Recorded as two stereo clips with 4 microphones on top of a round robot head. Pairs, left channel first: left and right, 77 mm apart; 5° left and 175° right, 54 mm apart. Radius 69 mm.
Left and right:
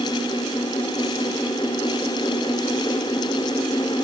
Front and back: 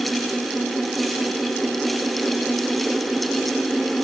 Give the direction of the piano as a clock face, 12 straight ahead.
I don't hear a piano.